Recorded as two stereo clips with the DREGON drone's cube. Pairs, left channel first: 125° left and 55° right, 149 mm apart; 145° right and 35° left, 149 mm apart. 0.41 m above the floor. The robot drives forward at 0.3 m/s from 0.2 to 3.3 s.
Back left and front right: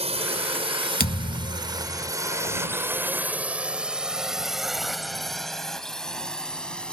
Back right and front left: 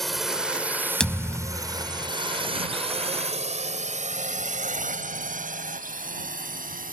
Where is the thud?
130° left; by 2.1 s 145° left.